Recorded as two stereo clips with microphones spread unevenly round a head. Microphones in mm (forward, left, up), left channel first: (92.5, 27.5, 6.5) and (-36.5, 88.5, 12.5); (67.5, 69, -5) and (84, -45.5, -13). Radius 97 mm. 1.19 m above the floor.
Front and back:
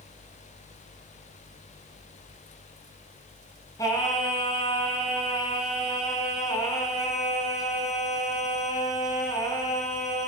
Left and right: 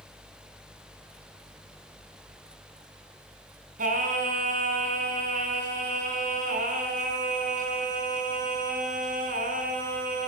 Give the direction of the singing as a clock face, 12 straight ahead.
3 o'clock.